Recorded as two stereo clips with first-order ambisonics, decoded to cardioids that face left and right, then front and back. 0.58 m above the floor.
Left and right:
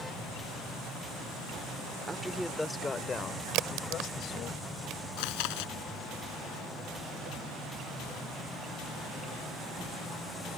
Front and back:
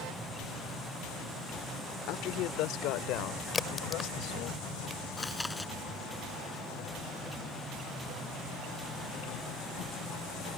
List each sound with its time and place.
2.1 s a man speaking: 15° right; by 4.5 s 40° left
3.5 s a crack: 70° right
5.2 s chewing: 85° left